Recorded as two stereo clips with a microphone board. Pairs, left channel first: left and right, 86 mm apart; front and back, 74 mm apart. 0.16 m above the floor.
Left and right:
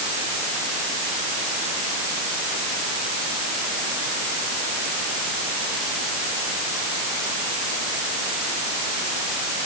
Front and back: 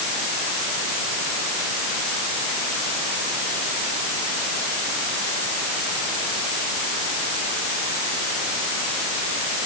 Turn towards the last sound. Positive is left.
No sound to turn to.